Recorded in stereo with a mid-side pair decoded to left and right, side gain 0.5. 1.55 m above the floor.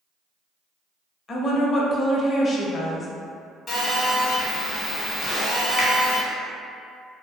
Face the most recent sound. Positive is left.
turn(degrees=35)